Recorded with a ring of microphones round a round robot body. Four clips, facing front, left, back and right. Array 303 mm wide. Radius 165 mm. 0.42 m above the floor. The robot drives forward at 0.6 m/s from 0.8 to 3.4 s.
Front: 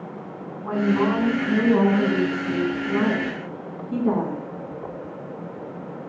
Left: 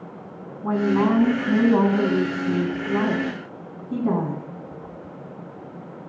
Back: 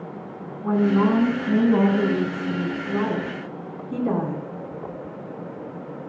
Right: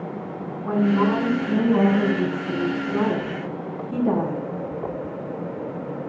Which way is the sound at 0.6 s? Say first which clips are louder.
Even, back 2 dB; 90° left.